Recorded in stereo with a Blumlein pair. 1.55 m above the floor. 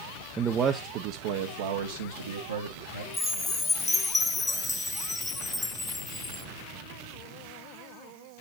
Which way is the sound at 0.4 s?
15° right.